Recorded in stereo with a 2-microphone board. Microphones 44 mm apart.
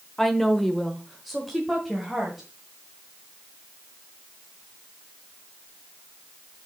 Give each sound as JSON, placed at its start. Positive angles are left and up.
{"t": 0.2, "sound": "a woman speaking", "side_deg": 5, "distance_m": 1.1}